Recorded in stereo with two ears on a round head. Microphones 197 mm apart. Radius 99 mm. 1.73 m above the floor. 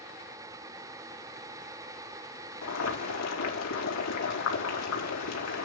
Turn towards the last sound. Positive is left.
turn(degrees=85)